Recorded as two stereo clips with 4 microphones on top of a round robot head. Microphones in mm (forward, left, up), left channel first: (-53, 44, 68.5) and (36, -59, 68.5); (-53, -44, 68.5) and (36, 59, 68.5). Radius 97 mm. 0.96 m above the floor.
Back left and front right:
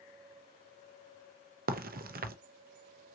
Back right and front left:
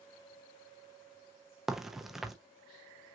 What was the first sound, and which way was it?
A crack, 40° right.